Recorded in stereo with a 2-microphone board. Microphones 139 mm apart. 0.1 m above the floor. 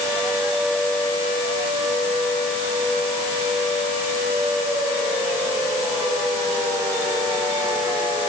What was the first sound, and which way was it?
Only background noise.